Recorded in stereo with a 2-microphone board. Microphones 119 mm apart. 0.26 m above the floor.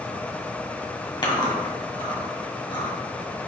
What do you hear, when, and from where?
1.2 s chewing: 40° left (ahead or behind), 1.6 m